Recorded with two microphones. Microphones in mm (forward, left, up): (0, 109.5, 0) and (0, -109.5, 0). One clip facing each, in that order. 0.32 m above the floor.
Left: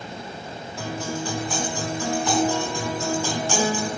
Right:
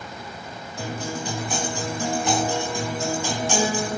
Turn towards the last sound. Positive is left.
turn(degrees=-20)  # may be behind; listen again after turning